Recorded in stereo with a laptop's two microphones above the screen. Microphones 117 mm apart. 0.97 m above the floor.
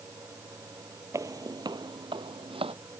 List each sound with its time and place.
0.0 s a fan: 25° right (ahead or behind)
1.1 s footsteps: 25° right (ahead or behind); by 2.8 s 50° right (ahead or behind)